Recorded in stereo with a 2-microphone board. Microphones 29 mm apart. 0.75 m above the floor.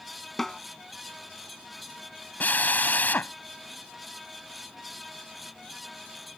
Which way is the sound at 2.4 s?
80° left.